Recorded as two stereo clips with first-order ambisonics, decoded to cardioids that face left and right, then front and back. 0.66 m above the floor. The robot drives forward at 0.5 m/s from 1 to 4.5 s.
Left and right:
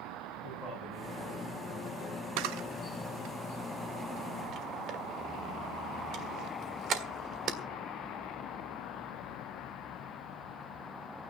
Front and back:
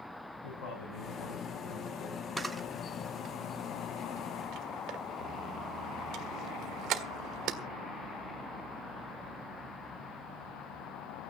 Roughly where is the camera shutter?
Right.